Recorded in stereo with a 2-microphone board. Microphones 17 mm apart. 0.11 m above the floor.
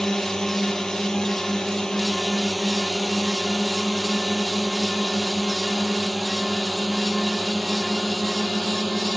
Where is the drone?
40° left (ahead or behind); by 9.2 s 30° left (ahead or behind).